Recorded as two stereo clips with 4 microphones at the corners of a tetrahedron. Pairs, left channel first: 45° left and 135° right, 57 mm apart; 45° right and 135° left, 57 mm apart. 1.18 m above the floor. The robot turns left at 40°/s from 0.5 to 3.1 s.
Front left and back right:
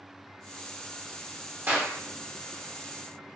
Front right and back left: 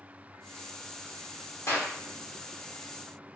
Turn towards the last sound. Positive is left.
turn(degrees=-135)